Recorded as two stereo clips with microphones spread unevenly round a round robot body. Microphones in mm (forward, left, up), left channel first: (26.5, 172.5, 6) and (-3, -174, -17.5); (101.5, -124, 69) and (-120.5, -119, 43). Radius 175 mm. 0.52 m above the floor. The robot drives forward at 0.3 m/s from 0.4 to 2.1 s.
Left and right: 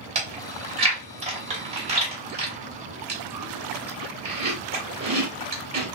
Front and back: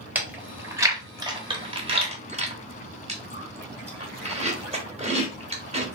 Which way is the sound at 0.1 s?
125° right.